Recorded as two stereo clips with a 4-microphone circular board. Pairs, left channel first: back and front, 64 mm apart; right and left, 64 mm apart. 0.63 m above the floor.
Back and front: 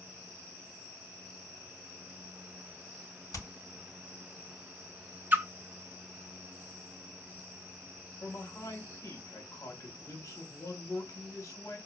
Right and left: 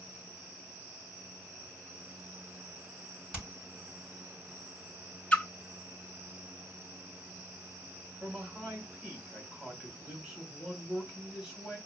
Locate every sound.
3.3 s hammering: 160° left, 3.5 m
5.3 s a splash: 35° right, 0.6 m
8.2 s a man speaking: 165° left, 2 m